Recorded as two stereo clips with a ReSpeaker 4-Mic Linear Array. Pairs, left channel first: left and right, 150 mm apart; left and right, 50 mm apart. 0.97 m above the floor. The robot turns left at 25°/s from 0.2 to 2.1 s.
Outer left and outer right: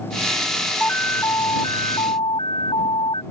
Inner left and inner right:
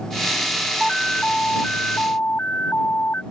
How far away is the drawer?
No drawer in this recording.